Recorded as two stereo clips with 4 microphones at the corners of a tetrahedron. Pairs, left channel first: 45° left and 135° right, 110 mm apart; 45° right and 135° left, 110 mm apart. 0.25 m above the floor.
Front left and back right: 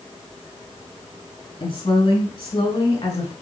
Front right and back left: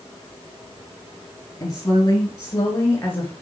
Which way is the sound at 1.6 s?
10° left.